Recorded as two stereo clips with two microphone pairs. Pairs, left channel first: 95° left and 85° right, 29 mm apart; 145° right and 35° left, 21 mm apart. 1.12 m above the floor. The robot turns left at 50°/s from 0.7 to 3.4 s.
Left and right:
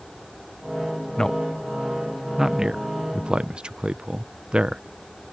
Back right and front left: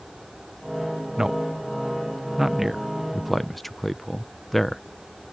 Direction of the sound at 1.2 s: 40° left.